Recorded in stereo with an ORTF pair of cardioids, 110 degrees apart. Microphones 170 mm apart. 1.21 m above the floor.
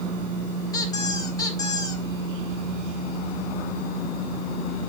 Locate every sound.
0.7 s a squeak: 20° left, 2.5 m